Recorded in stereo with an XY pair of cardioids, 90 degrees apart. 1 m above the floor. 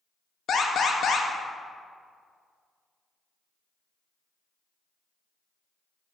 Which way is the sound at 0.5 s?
65° left.